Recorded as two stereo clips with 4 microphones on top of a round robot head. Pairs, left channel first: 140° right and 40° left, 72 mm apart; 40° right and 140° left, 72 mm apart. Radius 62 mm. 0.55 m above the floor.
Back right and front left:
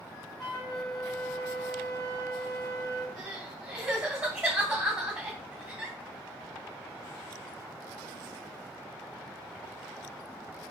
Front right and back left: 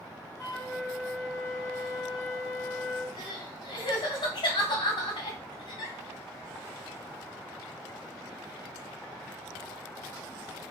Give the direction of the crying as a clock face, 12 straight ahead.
1 o'clock.